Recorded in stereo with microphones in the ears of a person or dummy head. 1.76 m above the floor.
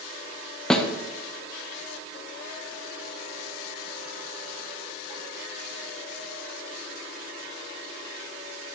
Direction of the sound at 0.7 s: Centre (ahead or behind).